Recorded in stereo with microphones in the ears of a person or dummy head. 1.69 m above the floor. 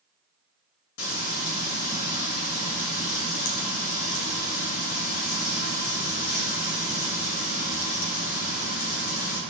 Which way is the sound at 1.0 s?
75° left (ahead or behind).